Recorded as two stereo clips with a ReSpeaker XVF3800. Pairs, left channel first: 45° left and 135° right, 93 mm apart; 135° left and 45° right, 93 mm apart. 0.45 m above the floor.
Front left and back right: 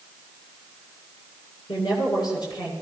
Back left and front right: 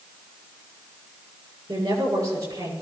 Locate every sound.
1.7 s a woman speaking: 5° left, 7 m